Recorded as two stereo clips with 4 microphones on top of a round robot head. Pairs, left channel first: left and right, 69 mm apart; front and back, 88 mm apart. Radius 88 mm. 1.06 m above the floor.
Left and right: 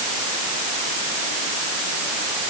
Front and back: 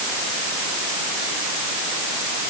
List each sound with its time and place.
Only background noise.